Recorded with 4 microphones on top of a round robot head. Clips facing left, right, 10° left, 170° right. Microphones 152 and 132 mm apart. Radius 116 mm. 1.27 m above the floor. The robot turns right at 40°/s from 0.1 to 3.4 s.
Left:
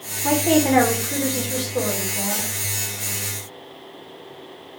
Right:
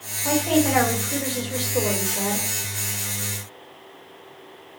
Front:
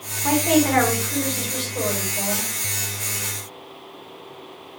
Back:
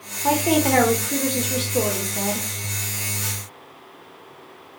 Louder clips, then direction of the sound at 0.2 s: Left 3 dB, front 1 dB; 120° left.